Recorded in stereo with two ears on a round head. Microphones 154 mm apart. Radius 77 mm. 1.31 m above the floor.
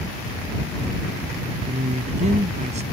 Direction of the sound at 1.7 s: 45° right (ahead or behind).